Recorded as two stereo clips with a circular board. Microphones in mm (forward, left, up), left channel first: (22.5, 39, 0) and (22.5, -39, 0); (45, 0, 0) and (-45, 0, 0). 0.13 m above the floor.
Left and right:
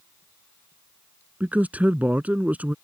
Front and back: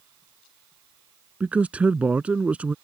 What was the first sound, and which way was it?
A man speaking, 125° right.